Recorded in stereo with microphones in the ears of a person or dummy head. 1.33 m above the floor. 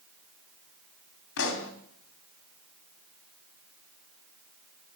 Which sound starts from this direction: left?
A pop, at 1.4 s.